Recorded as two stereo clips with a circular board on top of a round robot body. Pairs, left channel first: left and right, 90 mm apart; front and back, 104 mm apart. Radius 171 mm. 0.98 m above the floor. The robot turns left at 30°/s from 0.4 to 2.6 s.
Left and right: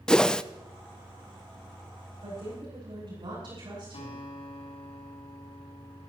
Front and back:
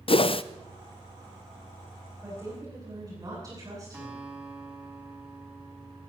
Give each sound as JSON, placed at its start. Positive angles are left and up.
{"t": 0.1, "sound": "a whoosh", "azimuth_deg": 10, "distance_m": 0.7}
{"t": 2.2, "sound": "a woman speaking", "azimuth_deg": -115, "distance_m": 10.0}
{"t": 3.9, "sound": "a guitar", "azimuth_deg": 105, "distance_m": 3.0}